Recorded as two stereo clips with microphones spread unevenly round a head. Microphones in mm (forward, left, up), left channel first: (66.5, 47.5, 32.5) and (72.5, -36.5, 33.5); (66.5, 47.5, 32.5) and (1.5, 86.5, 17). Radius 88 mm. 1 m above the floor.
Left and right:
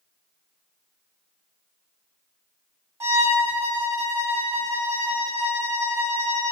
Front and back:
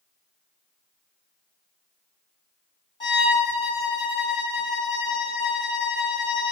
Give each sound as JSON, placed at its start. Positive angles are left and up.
{"t": 3.0, "sound": "a violin", "azimuth_deg": -30, "distance_m": 1.3}